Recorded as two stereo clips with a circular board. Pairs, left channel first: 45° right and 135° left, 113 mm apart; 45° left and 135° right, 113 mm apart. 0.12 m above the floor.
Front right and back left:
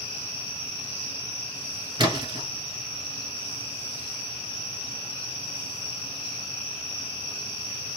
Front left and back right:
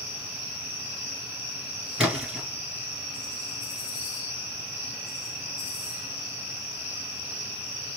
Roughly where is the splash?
Behind left.